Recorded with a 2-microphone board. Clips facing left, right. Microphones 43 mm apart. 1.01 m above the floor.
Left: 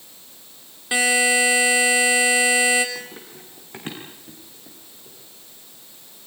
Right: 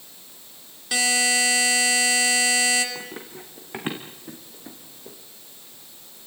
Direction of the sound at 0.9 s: 25° left (ahead or behind).